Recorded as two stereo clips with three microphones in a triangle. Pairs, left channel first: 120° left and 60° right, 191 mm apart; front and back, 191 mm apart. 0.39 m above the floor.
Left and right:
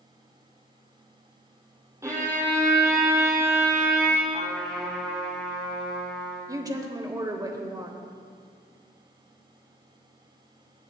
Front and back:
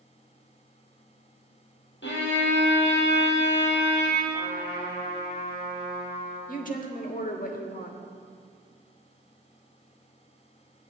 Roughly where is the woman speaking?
Ahead.